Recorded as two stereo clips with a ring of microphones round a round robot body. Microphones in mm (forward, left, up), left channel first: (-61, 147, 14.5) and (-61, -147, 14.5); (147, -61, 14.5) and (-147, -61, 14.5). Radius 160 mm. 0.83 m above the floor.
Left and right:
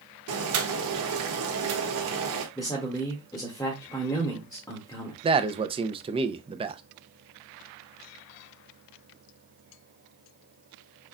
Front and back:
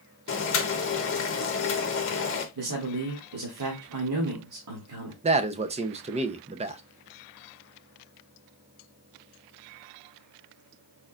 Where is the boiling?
45° right, 1.2 m.